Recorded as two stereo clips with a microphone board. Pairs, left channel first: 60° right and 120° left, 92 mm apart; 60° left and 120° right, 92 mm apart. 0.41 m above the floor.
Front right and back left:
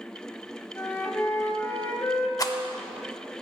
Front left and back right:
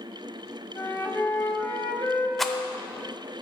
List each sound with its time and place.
0.8 s a flute: straight ahead, 1.1 m
2.4 s a rattle: 30° right, 0.6 m